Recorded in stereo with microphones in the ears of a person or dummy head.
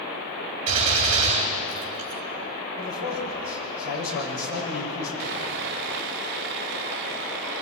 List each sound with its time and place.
0.7 s a gunshot: 35° right (ahead or behind), 3 m
2.8 s a man speaking: 70° left (ahead or behind), 8 m
5.2 s sawing: 45° right (ahead or behind), 0.6 m